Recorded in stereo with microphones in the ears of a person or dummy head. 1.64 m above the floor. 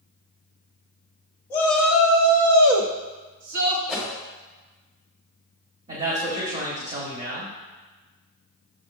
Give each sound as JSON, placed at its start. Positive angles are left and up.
{"t": 1.5, "sound": "a shout", "side_deg": 20, "distance_m": 0.7}
{"t": 3.9, "sound": "a whoosh", "side_deg": -10, "distance_m": 1.1}
{"t": 5.9, "sound": "a man speaking", "side_deg": -40, "distance_m": 0.9}